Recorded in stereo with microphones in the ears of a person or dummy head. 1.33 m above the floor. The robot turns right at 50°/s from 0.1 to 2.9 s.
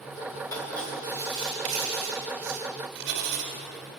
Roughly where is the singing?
No singing in this recording.